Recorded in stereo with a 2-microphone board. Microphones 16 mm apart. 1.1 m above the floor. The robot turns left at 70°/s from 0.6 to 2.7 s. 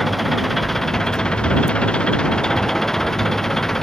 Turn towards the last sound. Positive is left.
turn(degrees=25)